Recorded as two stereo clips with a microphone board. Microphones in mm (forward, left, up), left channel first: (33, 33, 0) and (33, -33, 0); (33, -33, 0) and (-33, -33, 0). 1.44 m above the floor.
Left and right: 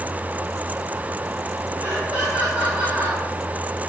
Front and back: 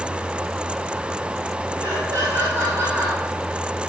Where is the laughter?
155° right, 6.5 m.